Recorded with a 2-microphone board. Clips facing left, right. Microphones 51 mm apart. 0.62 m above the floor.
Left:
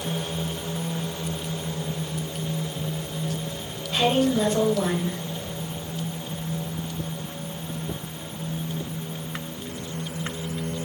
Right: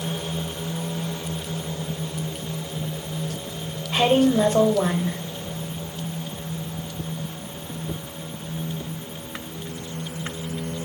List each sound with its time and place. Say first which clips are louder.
3.9 s a woman speaking: right 3 dB; 30° right (ahead or behind), 3 m